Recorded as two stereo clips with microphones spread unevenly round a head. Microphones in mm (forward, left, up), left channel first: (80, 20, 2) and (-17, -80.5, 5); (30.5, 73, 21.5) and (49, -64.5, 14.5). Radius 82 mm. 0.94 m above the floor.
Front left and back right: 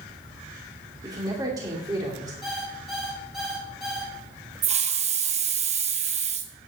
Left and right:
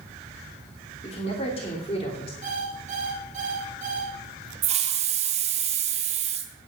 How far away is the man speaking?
About 2.5 m.